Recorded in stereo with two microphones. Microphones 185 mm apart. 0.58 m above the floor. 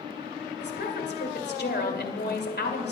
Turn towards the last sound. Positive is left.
turn(degrees=65)  # may be behind; listen again after turning